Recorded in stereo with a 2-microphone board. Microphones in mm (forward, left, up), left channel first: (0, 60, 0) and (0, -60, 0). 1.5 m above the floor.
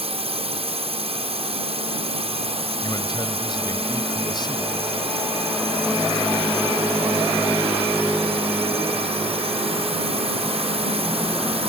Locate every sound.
0.0 s a drone: 60° right (ahead or behind)
2.8 s a man speaking: 40° left (ahead or behind)